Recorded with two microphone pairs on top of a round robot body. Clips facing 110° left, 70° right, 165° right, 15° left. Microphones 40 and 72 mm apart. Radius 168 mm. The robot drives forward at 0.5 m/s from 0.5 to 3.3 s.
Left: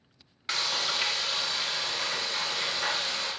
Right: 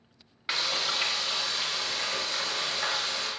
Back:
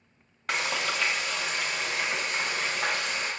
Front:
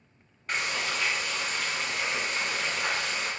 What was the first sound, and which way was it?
Frying, 150° right.